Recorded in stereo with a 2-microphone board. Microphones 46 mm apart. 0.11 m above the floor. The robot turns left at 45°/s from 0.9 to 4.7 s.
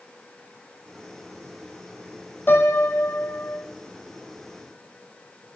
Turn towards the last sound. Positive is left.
turn(degrees=25)